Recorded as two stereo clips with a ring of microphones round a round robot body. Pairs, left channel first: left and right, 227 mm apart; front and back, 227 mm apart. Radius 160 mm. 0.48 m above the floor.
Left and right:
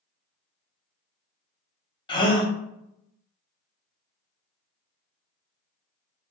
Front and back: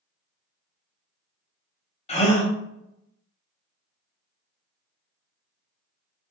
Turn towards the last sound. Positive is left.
turn(degrees=40)